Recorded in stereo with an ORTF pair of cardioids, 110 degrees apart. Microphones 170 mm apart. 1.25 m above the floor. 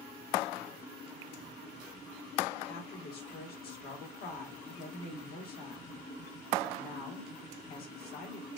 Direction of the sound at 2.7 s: 65° left.